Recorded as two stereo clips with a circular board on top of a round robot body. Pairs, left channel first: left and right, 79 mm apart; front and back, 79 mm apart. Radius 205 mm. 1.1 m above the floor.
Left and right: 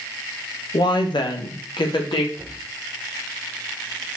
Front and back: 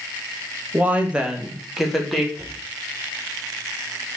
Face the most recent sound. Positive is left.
turn(degrees=-140)